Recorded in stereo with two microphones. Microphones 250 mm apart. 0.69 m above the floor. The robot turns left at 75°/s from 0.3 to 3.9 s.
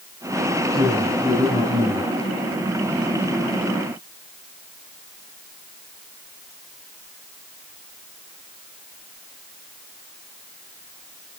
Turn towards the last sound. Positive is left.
turn(degrees=-20)